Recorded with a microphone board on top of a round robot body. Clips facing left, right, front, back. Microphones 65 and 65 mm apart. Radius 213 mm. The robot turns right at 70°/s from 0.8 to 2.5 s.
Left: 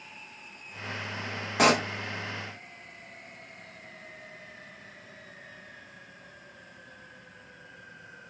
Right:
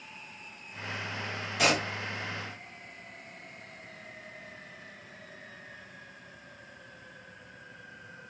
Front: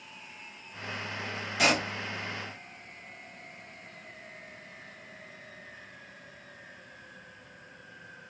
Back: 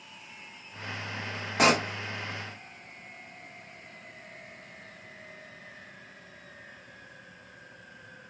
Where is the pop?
130° left, 0.7 m; by 1.9 s 150° left, 0.7 m.